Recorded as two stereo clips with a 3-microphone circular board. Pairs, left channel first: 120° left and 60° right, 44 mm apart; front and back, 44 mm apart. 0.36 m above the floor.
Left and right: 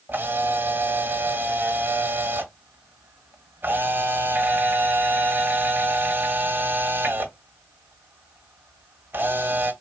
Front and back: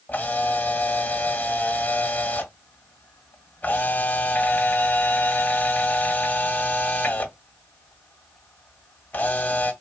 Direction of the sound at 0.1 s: 40° right.